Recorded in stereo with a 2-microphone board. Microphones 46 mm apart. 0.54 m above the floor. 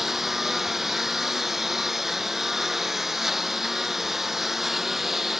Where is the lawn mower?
5° right (ahead or behind).